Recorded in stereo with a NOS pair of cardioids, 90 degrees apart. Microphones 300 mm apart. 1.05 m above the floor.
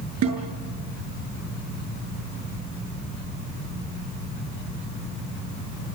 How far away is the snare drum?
About 7 m.